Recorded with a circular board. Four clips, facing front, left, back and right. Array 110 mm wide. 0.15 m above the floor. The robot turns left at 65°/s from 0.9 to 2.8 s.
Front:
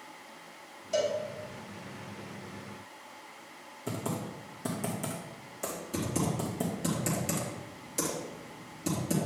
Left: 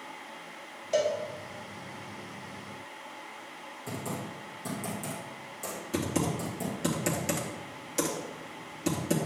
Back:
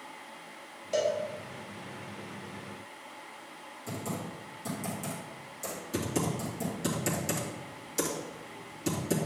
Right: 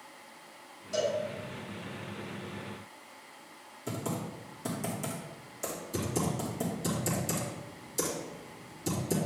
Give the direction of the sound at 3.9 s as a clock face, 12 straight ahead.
12 o'clock.